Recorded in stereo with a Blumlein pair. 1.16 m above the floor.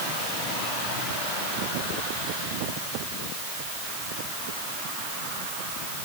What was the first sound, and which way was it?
Only background noise.